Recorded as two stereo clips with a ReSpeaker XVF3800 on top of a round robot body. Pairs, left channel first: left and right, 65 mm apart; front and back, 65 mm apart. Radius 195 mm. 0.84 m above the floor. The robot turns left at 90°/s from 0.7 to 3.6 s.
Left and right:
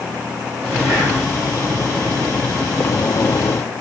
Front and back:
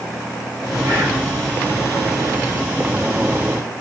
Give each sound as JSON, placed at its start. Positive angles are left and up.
{"t": 0.8, "sound": "whispering", "azimuth_deg": -160, "distance_m": 1.5}